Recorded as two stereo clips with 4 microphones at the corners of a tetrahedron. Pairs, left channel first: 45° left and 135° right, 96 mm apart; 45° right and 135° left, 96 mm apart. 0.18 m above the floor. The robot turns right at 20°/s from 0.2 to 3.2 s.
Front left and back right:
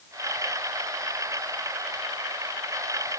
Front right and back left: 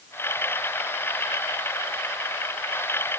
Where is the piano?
No piano in this recording.